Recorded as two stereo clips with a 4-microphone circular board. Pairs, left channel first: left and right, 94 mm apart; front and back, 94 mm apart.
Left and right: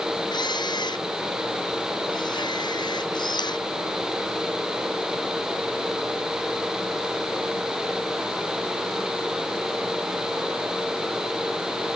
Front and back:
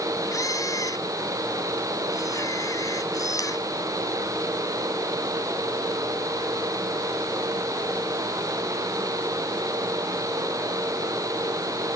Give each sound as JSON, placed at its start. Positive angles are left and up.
{"t": 0.3, "sound": "a camera shutter", "azimuth_deg": 50}